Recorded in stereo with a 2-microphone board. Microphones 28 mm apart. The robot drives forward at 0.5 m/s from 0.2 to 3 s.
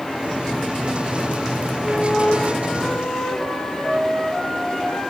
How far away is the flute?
About 6.5 m.